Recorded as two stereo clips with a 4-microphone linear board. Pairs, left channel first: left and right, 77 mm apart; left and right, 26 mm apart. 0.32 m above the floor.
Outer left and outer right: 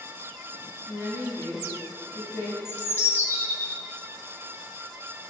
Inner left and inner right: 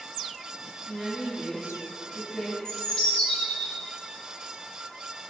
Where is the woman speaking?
30° left (ahead or behind), 2.5 m.